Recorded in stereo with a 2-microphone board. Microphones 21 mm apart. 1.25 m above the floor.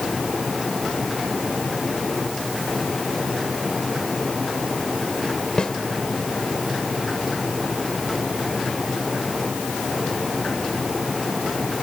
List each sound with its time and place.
5.6 s a snare drum: 40° left (ahead or behind)